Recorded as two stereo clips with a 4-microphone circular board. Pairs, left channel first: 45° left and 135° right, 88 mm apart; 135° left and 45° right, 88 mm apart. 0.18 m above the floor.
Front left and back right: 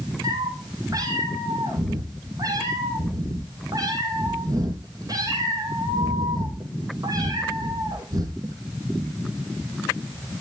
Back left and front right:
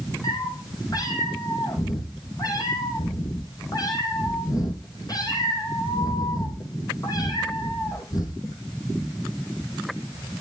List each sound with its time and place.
0.2 s a cat meowing: straight behind, 4 m